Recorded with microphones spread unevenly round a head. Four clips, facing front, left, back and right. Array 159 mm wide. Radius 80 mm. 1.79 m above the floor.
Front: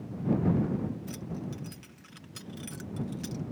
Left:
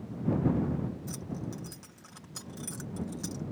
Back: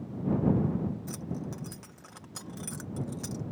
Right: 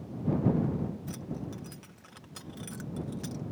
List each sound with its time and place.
1.1 s keys jangling: 170° right